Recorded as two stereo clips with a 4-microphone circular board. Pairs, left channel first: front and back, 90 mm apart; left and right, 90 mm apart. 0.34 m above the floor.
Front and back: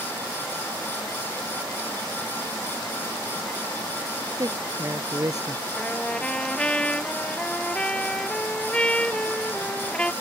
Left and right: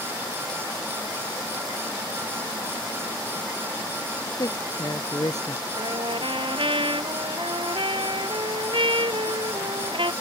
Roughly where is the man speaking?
Behind left.